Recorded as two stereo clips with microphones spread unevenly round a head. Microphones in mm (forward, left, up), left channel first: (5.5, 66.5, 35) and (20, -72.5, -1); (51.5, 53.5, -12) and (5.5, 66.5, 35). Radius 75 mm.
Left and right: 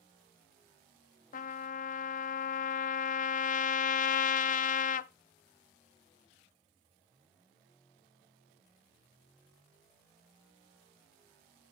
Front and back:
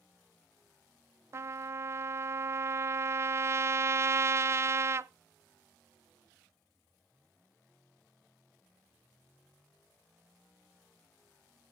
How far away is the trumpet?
About 0.6 m.